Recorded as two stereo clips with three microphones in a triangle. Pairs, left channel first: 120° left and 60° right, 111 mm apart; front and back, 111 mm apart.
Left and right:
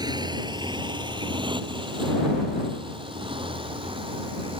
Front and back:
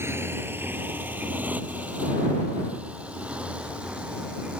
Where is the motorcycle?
110° right; by 4.6 s 100° right.